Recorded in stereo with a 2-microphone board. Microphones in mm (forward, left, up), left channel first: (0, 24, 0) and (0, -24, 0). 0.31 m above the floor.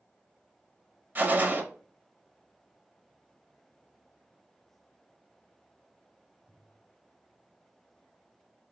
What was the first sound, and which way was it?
A gunshot, 35° right (ahead or behind).